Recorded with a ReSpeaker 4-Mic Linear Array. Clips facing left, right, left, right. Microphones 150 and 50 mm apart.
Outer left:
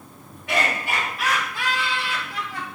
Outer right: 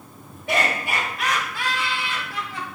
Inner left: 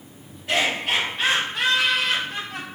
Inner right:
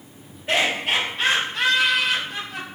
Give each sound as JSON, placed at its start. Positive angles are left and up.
{"t": 0.5, "sound": "laughter", "side_deg": -30, "distance_m": 1.1}